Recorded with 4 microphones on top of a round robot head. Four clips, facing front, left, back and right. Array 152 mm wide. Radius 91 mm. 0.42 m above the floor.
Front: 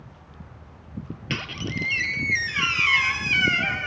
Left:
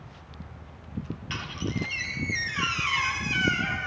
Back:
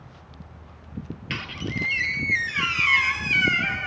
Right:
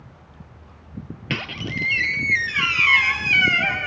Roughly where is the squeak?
Right.